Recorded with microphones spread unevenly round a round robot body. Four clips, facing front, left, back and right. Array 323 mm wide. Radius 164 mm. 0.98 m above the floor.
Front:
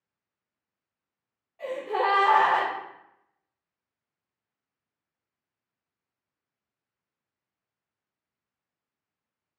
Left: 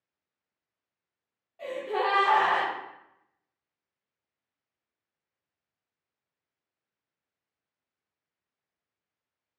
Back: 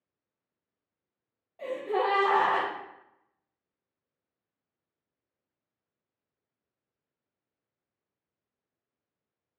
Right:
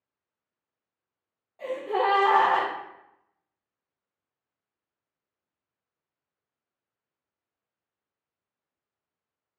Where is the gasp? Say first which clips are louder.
Right 3 dB, front 1 dB; 160° right, 1.2 m.